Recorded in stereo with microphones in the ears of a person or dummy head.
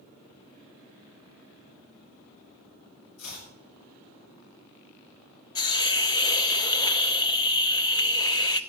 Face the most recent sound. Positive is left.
turn(degrees=20)  # may be behind; listen again after turning